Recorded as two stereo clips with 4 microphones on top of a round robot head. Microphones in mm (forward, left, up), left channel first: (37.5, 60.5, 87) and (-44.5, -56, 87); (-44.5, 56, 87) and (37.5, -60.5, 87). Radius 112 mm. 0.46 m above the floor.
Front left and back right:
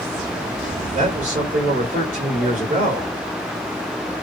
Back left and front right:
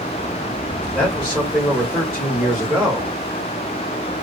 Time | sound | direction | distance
0.9 | a man speaking | 150° right | 1.6 m